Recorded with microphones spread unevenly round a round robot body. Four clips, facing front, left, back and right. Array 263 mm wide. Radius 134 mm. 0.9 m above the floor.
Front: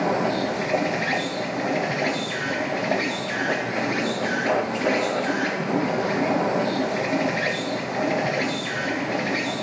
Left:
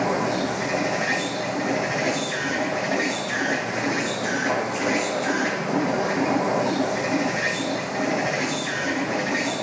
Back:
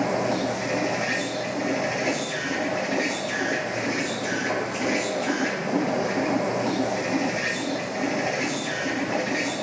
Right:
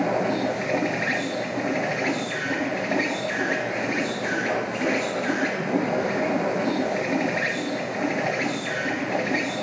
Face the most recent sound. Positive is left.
turn(degrees=15)